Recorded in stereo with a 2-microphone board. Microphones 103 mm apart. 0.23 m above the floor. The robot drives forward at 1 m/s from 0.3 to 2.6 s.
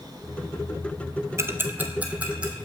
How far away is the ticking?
About 0.7 m.